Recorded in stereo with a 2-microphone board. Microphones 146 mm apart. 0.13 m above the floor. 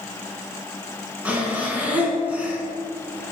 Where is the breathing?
10° right (ahead or behind), 1.4 m.